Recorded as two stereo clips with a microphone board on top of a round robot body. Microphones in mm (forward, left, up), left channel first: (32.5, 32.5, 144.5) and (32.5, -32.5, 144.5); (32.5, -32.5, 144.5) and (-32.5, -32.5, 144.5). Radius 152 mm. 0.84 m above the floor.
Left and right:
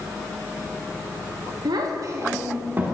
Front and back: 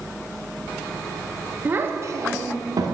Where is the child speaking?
115° right, 0.7 m; by 2.9 s 155° right, 1.4 m.